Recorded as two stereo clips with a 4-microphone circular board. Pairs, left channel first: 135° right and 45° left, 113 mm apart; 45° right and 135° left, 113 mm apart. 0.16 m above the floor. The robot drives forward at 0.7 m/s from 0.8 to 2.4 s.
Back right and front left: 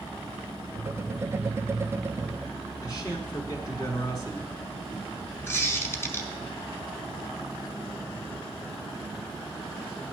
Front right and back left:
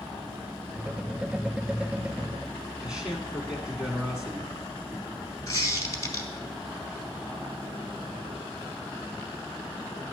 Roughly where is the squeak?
Right.